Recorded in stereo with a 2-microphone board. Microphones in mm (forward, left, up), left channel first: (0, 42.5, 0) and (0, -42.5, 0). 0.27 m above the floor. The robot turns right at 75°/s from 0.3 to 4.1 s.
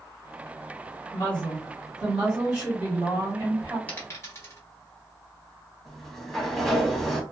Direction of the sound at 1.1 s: 15° left (ahead or behind).